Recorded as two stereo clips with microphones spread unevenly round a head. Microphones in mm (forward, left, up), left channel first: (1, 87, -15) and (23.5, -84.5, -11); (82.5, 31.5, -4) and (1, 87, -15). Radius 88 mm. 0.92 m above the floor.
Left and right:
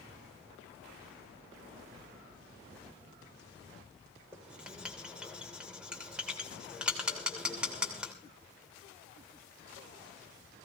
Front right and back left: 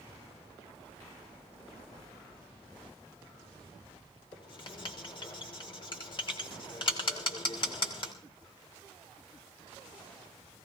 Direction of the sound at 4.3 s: Straight ahead.